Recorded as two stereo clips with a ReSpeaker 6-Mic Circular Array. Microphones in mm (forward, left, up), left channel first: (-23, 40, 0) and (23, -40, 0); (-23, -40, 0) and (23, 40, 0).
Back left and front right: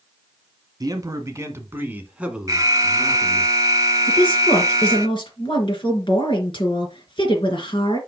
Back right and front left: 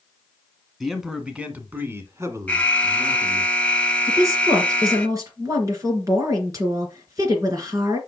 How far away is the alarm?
About 0.8 m.